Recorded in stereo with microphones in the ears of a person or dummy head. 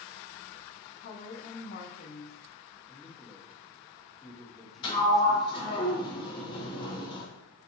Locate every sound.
1.0 s a woman speaking: 50° left (ahead or behind), 0.8 m
2.9 s a man speaking: 5° right (ahead or behind), 1.2 m
4.8 s a sliding door: 25° left (ahead or behind), 1.0 m